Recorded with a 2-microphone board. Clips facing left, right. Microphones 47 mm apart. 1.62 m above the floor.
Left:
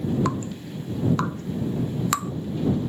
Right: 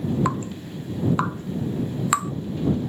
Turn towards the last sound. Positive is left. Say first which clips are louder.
# right 1 dB
turn(degrees=-10)  # may be behind; listen again after turning